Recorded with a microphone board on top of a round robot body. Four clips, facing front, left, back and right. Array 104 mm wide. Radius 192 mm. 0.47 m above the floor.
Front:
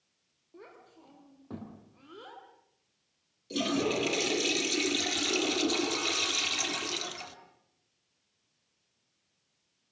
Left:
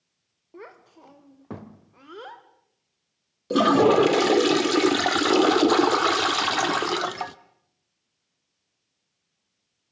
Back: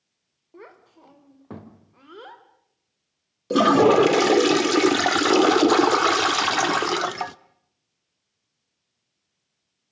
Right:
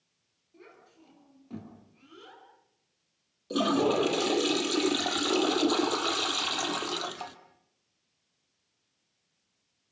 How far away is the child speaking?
About 2.5 m.